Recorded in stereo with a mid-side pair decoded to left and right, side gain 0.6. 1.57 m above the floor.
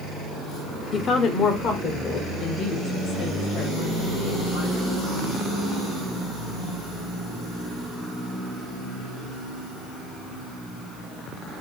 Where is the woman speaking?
40° left, 0.6 m; by 4.9 s 75° left, 2.5 m.